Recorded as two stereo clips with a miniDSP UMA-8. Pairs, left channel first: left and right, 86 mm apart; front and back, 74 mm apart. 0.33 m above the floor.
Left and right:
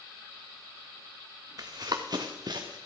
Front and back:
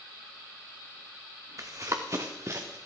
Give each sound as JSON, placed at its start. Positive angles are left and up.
{"t": 1.6, "sound": "running footsteps", "azimuth_deg": -135, "distance_m": 1.3}